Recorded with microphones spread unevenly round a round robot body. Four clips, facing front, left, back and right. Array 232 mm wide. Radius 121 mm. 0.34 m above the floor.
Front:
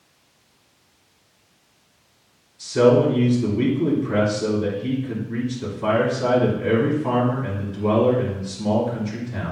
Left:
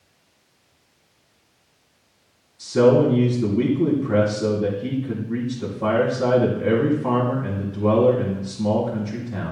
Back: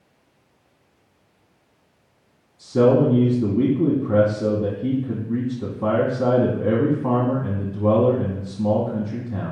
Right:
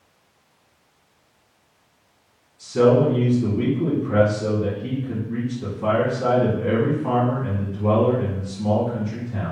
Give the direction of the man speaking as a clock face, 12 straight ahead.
7 o'clock.